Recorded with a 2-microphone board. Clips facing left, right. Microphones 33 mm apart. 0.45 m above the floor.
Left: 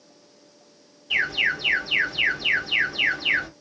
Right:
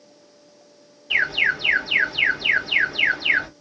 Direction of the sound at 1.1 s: 20° right (ahead or behind).